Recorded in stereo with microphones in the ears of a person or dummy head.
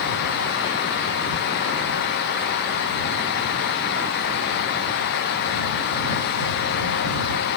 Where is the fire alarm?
I don't hear a fire alarm.